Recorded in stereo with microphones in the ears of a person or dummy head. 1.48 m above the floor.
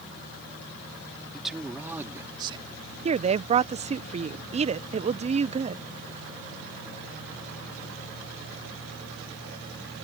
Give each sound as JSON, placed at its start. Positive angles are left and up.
{"t": 1.3, "sound": "a man speaking", "side_deg": 0}
{"t": 3.0, "sound": "a woman speaking", "side_deg": -30}